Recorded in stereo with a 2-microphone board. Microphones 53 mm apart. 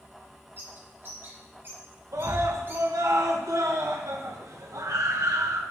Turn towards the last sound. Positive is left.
turn(degrees=-85)